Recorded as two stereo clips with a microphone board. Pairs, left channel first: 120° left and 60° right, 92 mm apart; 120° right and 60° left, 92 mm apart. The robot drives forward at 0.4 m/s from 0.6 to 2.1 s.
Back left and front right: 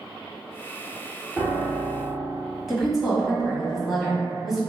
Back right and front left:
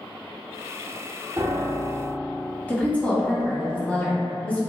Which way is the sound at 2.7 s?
145° right.